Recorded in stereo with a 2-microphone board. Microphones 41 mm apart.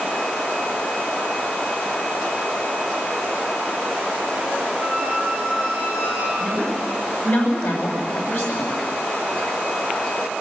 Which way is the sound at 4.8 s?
70° left (ahead or behind).